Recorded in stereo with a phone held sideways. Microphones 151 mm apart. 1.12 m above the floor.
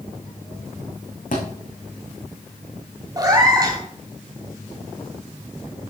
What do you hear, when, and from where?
1.3 s a thud: 65° left (ahead or behind), 4 m
3.2 s a cat meowing: 25° right (ahead or behind), 2.5 m